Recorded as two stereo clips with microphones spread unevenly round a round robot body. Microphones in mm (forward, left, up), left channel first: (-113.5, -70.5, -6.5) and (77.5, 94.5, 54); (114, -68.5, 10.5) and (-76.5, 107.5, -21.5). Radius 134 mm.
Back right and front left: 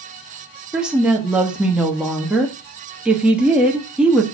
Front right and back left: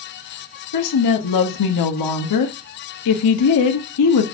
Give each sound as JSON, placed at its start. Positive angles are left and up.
{"t": 0.7, "sound": "a woman speaking", "azimuth_deg": -50, "distance_m": 1.4}